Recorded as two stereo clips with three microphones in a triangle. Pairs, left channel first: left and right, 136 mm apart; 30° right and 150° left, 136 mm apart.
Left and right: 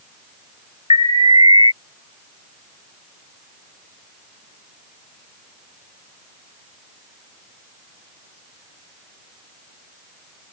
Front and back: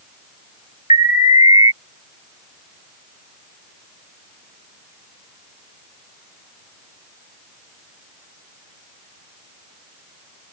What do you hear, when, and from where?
0.9 s an alarm: 45° right